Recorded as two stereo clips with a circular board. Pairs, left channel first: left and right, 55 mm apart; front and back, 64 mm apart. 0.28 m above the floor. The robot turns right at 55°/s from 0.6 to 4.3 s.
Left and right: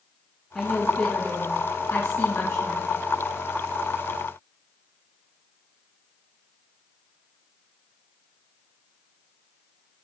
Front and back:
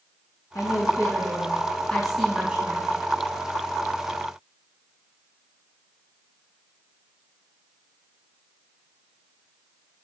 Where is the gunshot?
I don't hear a gunshot.